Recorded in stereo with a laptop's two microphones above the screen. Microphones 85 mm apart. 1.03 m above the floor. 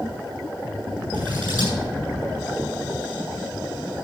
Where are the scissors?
80° right, 8.5 m.